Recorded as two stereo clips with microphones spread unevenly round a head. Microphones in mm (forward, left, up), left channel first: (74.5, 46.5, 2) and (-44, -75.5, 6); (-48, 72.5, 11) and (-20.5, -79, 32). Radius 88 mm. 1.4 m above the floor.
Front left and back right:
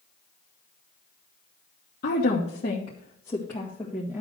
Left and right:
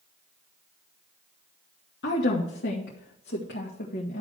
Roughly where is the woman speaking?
Left.